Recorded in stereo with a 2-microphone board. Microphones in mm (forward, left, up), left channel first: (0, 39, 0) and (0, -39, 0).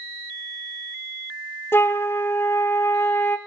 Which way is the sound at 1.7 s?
30° left (ahead or behind).